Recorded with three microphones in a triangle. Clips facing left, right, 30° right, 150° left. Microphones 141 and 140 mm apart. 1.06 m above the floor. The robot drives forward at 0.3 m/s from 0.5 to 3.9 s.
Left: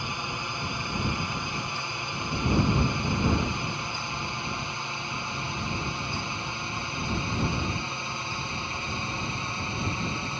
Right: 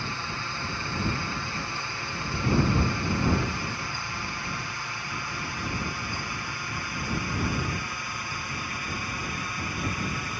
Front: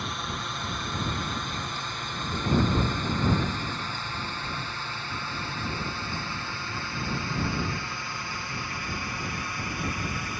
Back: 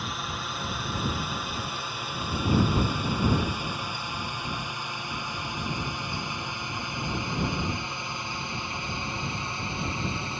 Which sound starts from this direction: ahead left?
A drone, at 0.0 s.